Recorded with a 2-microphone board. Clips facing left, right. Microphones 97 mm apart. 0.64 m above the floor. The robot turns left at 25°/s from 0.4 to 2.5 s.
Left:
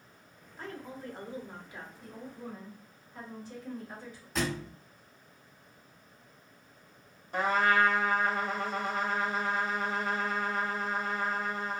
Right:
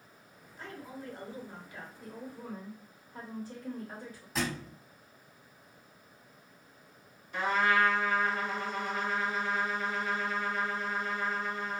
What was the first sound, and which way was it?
A woman speaking, 55° left.